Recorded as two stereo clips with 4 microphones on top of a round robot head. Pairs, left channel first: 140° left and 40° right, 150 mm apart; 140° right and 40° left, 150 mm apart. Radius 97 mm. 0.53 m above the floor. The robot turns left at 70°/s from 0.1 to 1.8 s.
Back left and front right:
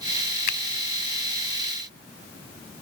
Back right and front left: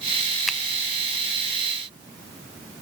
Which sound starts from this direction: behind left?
A finger snap, at 0.5 s.